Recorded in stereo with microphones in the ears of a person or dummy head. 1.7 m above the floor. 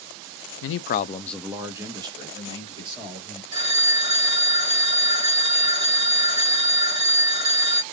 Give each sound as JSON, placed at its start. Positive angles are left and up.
{"t": 0.6, "sound": "a man speaking", "side_deg": 75, "distance_m": 0.6}
{"t": 3.5, "sound": "a phone ringing", "side_deg": -30, "distance_m": 1.9}